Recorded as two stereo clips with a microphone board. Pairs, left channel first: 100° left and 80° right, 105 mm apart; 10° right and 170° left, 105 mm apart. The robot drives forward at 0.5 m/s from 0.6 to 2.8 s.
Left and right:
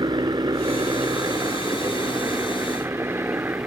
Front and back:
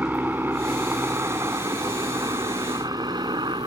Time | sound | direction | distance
0.0 | a helicopter | 120° right | ?